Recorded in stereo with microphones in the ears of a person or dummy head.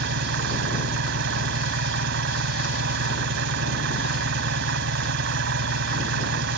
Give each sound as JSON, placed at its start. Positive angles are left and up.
{"t": 0.0, "sound": "an engine running", "side_deg": -70}